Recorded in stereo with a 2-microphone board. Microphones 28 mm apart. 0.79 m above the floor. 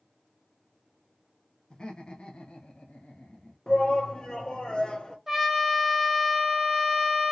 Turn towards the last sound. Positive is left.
turn(degrees=-10)  # may be behind; listen again after turning